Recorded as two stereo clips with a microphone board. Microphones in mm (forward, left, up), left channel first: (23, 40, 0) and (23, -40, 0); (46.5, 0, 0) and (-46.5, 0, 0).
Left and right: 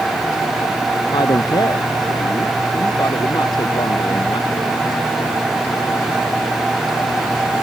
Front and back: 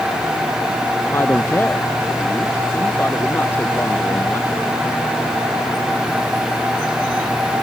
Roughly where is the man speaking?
Ahead left.